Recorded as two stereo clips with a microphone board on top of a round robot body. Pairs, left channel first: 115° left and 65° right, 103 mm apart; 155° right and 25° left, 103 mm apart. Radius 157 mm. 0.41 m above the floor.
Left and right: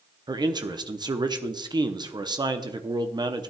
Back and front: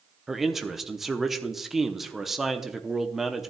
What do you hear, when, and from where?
0.3 s a man speaking: 65° right, 0.9 m